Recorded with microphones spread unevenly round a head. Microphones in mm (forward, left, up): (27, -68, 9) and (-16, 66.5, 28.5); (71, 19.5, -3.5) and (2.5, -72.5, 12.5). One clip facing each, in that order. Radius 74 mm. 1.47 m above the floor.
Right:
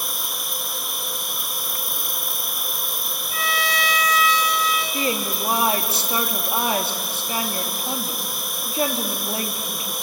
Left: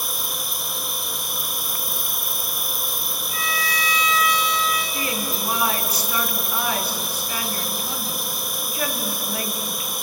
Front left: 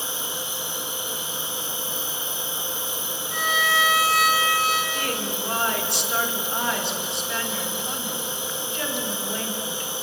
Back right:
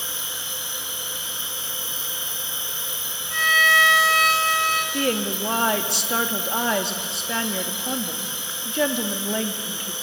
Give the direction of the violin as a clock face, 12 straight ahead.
1 o'clock.